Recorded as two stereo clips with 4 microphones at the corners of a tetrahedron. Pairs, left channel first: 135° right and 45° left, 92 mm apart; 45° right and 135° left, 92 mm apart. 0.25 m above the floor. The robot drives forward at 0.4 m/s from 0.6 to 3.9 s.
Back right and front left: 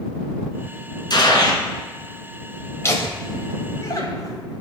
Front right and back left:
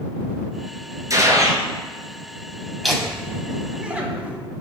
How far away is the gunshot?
About 1.2 m.